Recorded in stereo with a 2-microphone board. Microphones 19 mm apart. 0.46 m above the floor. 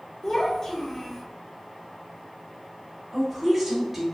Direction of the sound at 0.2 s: 25° left (ahead or behind).